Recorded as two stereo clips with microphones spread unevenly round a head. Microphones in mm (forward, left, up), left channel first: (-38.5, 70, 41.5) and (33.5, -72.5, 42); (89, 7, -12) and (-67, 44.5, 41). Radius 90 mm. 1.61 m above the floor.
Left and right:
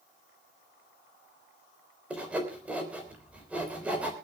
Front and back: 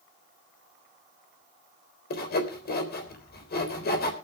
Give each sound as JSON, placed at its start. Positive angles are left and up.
{"t": 2.1, "sound": "sawing", "azimuth_deg": 20, "distance_m": 3.5}